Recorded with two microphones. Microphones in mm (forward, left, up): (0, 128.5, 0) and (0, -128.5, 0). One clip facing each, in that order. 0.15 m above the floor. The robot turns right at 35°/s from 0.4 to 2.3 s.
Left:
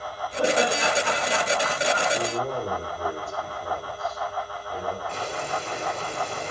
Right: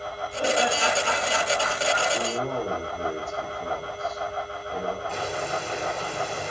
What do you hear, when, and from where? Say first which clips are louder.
0.4 s laughter: left 2 dB; 65° left (ahead or behind), 4 m; by 2.0 s 35° left (ahead or behind), 4 m
2.1 s a man speaking: even; 35° right (ahead or behind), 4.5 m; by 5.0 s 30° right (ahead or behind), 4.5 m
5.1 s boiling: right 1 dB; 10° right (ahead or behind), 4 m